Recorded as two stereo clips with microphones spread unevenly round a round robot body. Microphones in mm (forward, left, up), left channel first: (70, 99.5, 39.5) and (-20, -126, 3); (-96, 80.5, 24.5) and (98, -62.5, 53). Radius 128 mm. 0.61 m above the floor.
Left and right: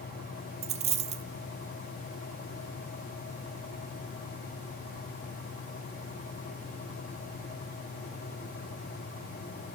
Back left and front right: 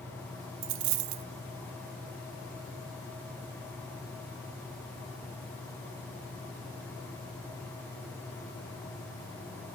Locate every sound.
0.6 s a dropped coin: 50° right, 0.6 m